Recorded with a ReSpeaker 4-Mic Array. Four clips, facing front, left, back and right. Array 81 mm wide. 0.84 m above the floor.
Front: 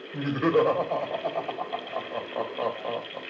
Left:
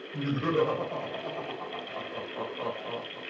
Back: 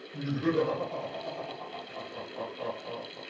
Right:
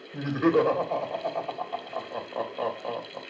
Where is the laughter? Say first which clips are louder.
Right 5 dB, front 5 dB; 35° right, 3.5 m.